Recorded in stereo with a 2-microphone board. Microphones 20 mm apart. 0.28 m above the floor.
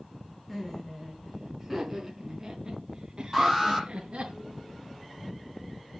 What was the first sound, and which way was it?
Laughter, 5° left (ahead or behind).